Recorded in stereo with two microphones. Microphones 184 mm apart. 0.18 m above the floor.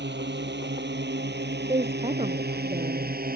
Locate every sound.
0.0 s a drone: 75° right (ahead or behind); by 3.4 s 55° right (ahead or behind)
1.7 s a woman speaking: 35° right (ahead or behind)